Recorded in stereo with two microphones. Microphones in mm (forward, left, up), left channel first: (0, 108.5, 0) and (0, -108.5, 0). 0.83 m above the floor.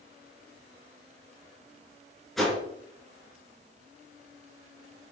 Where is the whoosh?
Centre (ahead or behind), 4 m.